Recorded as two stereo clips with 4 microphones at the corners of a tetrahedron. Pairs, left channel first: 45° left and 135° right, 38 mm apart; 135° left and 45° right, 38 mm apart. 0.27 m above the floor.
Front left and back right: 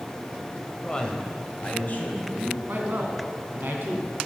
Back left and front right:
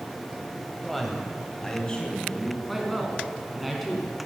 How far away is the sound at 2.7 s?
About 2.5 m.